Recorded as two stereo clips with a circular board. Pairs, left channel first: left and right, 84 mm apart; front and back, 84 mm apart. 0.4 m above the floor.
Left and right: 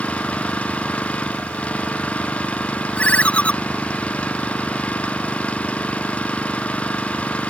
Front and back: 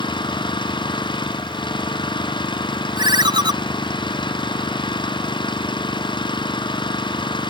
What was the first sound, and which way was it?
An engine running, 15° left.